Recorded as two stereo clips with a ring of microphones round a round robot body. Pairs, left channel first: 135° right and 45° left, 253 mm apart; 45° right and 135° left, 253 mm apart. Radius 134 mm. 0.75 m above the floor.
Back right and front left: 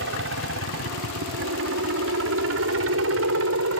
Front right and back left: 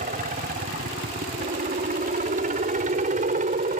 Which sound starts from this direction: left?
A helicopter, at 0.0 s.